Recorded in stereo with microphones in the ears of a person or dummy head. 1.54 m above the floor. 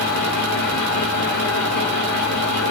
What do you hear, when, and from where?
0.0 s a fan: 60° left (ahead or behind), 1.5 m